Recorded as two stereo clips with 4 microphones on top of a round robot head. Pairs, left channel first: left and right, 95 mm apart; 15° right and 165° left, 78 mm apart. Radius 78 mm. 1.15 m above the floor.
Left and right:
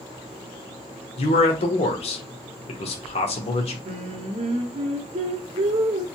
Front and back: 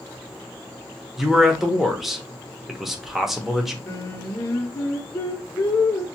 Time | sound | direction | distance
1.2 | a man speaking | 80° left | 0.9 m
3.9 | singing | 75° right | 0.6 m